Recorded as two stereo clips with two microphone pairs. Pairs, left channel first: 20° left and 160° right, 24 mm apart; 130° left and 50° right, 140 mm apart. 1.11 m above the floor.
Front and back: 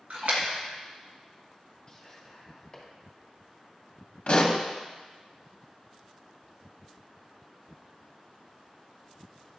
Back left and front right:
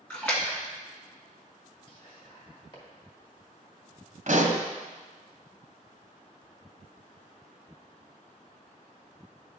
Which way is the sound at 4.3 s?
25° right.